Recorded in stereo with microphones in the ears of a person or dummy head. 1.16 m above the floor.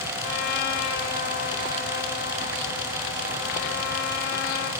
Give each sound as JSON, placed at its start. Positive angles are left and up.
{"t": 0.2, "sound": "a trumpet", "side_deg": 55, "distance_m": 1.7}